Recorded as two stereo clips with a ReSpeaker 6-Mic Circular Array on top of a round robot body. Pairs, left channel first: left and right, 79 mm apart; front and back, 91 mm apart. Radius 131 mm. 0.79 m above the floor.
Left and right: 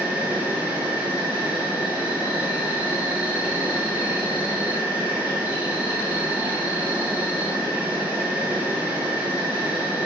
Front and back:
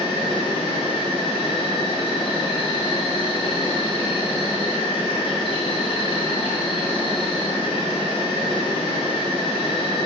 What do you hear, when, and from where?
0.0 s an insect: 15° right, 0.7 m